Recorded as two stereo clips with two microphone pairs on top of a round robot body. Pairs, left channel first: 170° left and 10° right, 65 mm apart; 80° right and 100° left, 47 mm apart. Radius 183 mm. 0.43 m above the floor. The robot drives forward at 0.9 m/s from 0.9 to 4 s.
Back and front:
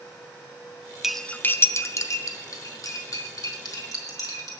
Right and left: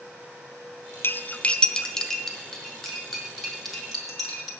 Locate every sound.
1.0 s cutlery clinking: 105° right, 0.6 m; by 4.5 s 170° right, 3 m